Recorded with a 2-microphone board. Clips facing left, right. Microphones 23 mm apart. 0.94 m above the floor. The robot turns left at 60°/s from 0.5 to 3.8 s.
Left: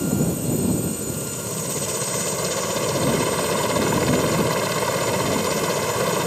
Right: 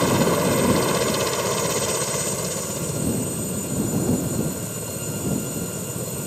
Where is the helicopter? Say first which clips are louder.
Right 4 dB; 80° right; by 6.3 s 80° left.